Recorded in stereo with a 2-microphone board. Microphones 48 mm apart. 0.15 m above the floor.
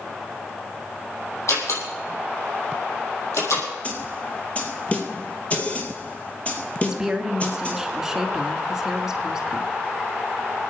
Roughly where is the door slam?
Left.